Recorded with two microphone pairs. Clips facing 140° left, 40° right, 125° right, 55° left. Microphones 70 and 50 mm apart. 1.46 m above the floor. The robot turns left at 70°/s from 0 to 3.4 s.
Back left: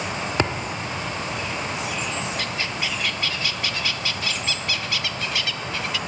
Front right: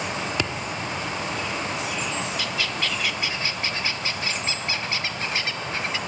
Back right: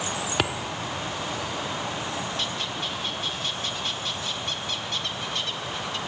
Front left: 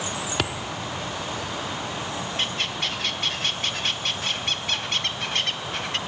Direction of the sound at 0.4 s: 155° left.